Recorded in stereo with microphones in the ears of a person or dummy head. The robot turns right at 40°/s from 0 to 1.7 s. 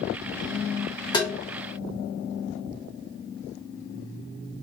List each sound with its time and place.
1.1 s tapping: 20° left (ahead or behind), 1.2 m; by 1.3 s 15° left (ahead or behind), 1.2 m